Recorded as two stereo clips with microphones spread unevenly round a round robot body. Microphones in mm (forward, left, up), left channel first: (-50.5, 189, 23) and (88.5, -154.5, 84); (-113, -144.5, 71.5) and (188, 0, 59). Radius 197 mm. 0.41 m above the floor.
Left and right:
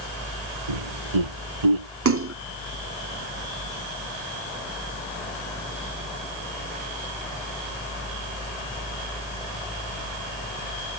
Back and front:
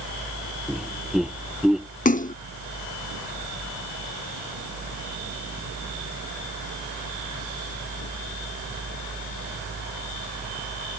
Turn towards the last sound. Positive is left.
turn(degrees=-105)